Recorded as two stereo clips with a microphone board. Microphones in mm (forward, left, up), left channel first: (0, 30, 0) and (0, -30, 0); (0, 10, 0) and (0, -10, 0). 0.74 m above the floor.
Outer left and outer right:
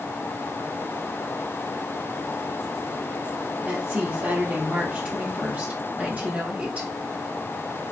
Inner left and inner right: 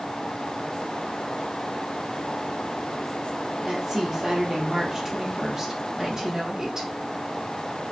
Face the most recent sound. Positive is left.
turn(degrees=-30)  # may be behind; listen again after turning